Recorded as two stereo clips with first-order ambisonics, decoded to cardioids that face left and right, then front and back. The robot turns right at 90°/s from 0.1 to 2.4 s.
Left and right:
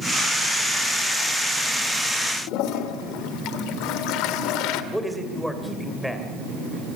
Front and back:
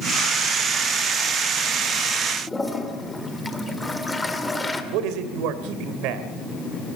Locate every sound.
2.5 s a toilet flushing: 85° left, 1.7 m
4.9 s a man speaking: straight behind, 2.5 m